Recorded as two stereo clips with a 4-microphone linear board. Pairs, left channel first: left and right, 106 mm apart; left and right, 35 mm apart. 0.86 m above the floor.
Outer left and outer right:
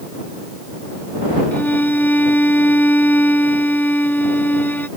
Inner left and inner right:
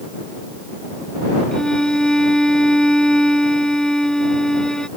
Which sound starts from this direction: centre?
A violin, at 1.5 s.